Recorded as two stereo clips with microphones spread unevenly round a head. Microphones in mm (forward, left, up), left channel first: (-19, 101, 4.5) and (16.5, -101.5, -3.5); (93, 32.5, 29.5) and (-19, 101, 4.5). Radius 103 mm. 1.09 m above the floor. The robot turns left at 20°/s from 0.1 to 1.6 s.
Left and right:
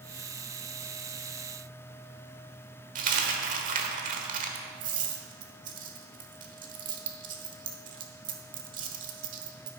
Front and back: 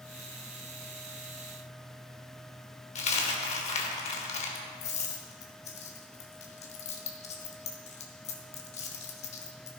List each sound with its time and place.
3.0 s a dropped coin: 30° right, 1.2 m